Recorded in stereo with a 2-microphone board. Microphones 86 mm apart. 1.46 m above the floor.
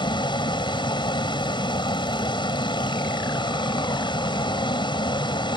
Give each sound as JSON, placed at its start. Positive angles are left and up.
{"t": 0.0, "sound": "a vehicle", "side_deg": 70}